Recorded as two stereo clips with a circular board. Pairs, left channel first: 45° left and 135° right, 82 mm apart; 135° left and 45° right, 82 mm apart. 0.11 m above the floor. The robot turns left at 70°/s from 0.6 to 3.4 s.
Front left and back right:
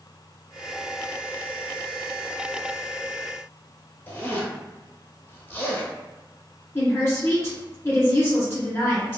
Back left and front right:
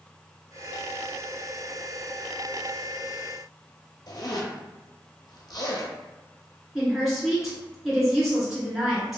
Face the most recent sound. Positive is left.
turn(degrees=40)